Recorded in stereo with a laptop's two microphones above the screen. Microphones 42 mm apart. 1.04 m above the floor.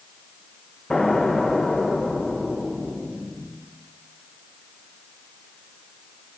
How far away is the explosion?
About 1.0 m.